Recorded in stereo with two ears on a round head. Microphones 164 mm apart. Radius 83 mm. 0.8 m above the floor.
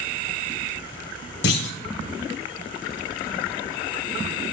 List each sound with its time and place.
1.4 s a clunk: 60° left (ahead or behind), 1.7 m